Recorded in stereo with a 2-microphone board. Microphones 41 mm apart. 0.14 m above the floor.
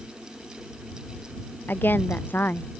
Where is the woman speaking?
55° left (ahead or behind).